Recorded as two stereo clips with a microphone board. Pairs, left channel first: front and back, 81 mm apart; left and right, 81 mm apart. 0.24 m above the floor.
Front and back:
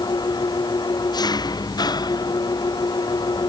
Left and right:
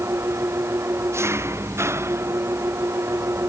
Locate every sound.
0.0 s an engine running: 30° right